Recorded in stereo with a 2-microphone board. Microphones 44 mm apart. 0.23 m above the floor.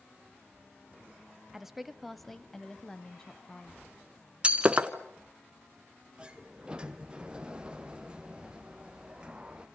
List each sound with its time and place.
1.5 s a woman speaking: 10° right (ahead or behind), 1.0 m; by 3.8 s 20° left (ahead or behind), 1.6 m
4.4 s breaking glass: 20° right (ahead or behind), 1.4 m
6.2 s a sliding door: 20° right (ahead or behind), 1.3 m